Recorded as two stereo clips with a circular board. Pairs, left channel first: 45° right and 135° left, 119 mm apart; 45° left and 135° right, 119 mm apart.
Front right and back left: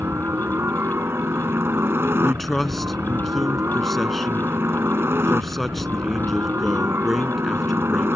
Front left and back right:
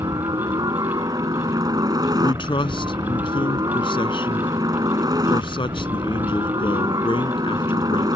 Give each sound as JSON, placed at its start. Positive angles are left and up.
{"t": 0.0, "sound": "a helicopter", "azimuth_deg": -165}
{"t": 2.2, "sound": "a man speaking", "azimuth_deg": 45}